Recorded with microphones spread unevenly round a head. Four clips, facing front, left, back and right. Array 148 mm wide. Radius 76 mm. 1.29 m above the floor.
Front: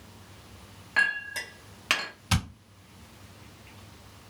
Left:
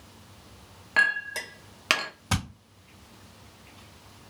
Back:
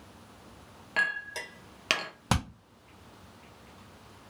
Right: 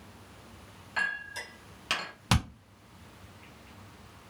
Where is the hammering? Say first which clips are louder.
Right 2 dB, back 1 dB; 170° right, 1.0 m.